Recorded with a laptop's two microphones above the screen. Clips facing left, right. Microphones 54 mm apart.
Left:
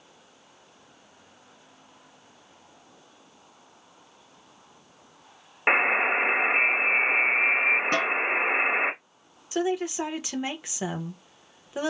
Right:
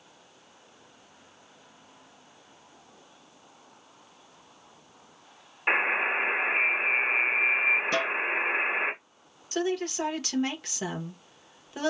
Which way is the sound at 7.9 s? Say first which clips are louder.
Left 2 dB; 50° left (ahead or behind).